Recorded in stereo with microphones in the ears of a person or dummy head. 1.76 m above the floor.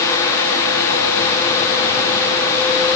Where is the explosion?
I don't hear an explosion.